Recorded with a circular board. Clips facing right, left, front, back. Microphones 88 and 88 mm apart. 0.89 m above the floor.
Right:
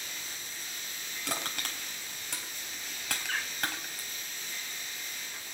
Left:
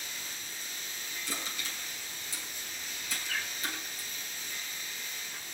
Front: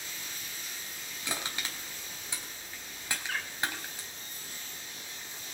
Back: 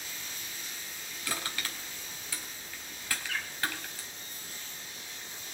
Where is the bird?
50° right, 4 m.